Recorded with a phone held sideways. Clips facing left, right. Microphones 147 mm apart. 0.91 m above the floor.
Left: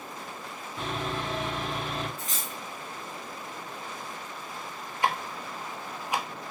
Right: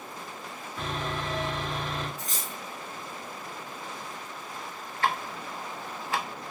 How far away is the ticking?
About 0.6 m.